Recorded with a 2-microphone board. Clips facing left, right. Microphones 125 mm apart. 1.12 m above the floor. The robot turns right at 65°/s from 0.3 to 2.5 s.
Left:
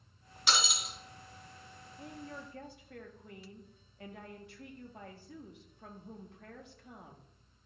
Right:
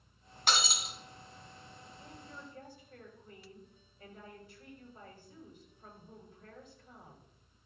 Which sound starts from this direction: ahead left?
A woman speaking, at 2.0 s.